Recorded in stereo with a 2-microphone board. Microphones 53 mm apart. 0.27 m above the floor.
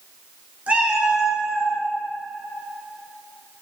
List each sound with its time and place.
0.7 s a cat meowing: 25° right (ahead or behind), 1.4 m; by 1.8 s centre (ahead or behind), 1.5 m